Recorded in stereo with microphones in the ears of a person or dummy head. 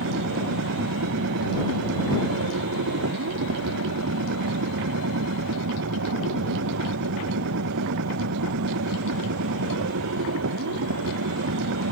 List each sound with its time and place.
0.0 s a machine running: 65° right (ahead or behind)